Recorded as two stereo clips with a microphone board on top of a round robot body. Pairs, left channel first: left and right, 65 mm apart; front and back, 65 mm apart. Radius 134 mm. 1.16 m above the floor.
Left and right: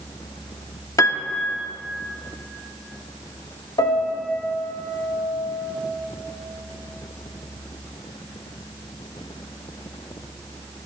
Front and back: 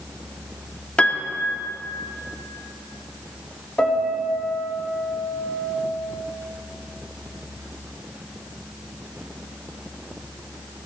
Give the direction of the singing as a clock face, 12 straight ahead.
No singing in this recording.